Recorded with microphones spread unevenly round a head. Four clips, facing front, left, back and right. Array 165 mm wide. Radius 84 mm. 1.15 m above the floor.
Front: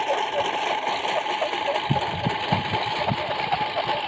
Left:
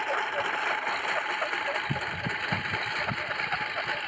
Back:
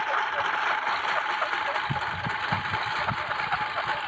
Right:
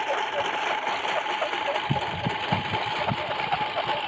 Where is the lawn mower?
10° right; by 4.1 s 20° right.